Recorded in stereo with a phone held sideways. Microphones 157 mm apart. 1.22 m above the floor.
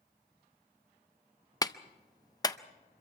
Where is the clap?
25° left (ahead or behind), 0.5 m.